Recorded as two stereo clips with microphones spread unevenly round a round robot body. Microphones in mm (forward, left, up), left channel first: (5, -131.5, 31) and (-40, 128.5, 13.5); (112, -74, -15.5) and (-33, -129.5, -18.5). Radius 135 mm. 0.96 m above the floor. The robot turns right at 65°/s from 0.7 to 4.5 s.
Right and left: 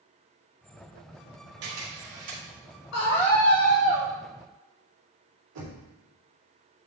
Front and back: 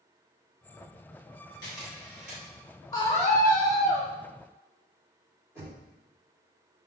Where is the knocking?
120° left, 2 m.